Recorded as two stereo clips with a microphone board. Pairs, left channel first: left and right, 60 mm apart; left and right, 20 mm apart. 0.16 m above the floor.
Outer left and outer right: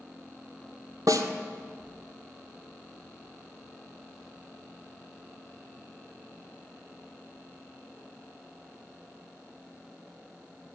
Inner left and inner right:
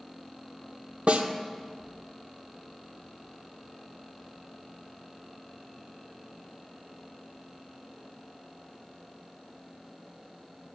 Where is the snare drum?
75° right (ahead or behind), 1.7 m.